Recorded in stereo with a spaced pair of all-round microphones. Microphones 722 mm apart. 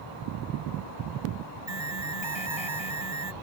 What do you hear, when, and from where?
1.7 s an alarm: 35° right (ahead or behind)